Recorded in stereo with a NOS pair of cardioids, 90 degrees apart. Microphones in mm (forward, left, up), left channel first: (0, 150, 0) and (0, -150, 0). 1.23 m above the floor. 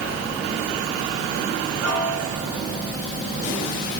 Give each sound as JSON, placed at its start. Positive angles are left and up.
{"t": 1.8, "sound": "a piano", "azimuth_deg": -55, "distance_m": 3.5}